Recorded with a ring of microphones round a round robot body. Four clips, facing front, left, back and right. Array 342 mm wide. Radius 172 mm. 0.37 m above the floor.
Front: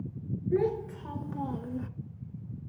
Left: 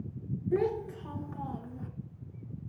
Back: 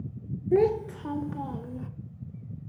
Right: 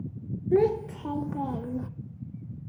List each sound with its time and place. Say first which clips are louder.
0.5 s a child speaking: right 7 dB, back 6 dB; 145° right, 0.8 m; by 1.9 s 70° right, 0.7 m